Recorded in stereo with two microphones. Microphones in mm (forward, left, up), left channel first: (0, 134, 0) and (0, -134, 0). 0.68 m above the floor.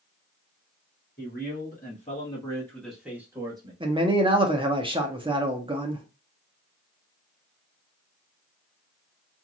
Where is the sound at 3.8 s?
20° right (ahead or behind), 0.9 m.